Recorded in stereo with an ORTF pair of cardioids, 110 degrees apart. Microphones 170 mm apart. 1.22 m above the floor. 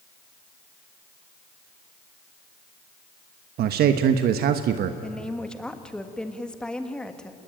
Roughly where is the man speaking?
Ahead right.